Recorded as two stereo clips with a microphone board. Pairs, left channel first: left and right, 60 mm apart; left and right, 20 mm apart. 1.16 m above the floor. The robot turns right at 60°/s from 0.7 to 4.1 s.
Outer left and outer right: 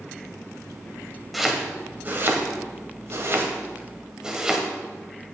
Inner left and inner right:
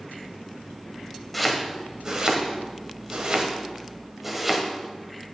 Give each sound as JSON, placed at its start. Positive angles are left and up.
{"t": 1.3, "sound": "chopping", "side_deg": 0, "distance_m": 1.3}